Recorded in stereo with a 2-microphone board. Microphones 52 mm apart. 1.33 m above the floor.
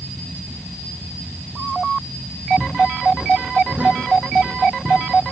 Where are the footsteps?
10° right (ahead or behind), 3 m; by 5.0 s 40° right (ahead or behind), 4 m.